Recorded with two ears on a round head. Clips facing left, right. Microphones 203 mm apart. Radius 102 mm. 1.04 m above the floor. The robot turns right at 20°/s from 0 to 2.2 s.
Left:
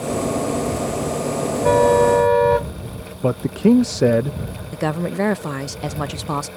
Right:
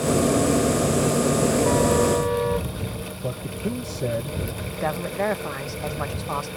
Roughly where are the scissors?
I don't hear scissors.